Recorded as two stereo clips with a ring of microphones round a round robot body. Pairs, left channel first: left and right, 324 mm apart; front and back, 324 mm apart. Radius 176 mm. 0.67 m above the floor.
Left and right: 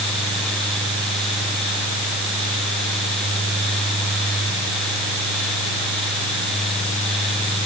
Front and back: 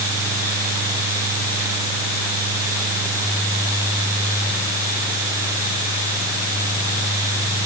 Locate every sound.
Only background noise.